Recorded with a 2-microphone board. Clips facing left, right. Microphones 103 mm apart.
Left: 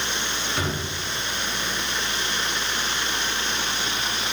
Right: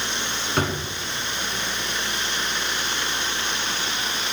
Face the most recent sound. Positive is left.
turn(degrees=-50)  # may be behind; listen again after turning